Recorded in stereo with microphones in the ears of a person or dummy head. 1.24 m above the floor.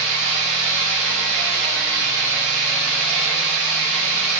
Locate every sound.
0.0 s an engine running: 60° right (ahead or behind), 4 m